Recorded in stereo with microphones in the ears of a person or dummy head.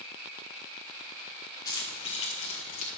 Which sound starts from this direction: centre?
Keys jangling, at 1.6 s.